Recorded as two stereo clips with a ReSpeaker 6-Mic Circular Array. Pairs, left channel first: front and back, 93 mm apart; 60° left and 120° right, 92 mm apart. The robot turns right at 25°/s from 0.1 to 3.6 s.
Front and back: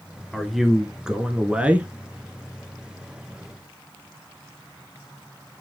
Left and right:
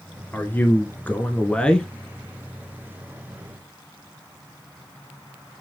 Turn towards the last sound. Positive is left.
turn(degrees=170)